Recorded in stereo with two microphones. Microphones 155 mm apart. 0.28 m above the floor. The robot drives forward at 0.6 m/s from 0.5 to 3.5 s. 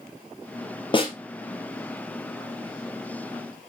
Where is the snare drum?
35° left (ahead or behind), 2.5 m.